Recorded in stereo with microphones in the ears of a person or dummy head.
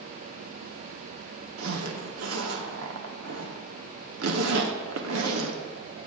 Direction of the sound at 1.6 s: 75° right (ahead or behind).